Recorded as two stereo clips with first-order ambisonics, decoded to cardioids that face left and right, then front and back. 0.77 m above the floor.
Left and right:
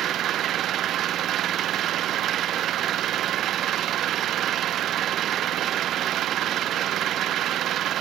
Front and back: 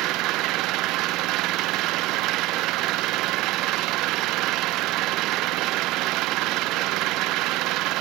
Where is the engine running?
145° right.